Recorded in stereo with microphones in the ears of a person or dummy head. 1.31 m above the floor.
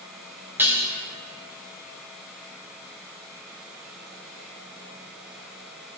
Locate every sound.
0.6 s dishes clattering: 10° right (ahead or behind), 1.3 m